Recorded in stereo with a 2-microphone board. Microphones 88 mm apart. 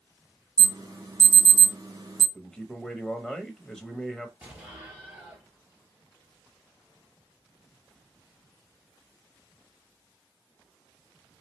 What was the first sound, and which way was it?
An alarm, 40° right (ahead or behind).